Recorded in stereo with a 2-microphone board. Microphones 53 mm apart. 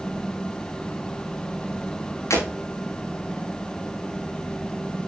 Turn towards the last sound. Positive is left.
turn(degrees=70)  # may be behind; listen again after turning